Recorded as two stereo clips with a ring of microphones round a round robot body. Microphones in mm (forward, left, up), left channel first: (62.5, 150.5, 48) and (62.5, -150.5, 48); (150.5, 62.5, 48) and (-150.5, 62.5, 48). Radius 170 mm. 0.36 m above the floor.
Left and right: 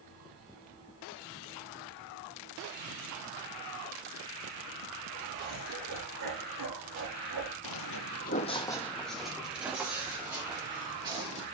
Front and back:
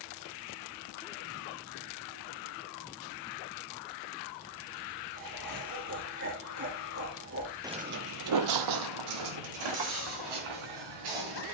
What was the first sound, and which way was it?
Laughter, 135° right.